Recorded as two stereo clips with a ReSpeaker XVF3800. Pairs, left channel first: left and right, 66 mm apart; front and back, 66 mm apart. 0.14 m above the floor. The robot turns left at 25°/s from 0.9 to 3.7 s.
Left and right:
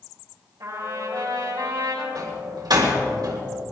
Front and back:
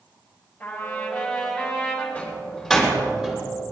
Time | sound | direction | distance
0.6 | a trumpet | 70° right | 5.5 m
2.1 | a door slam | 75° right | 4 m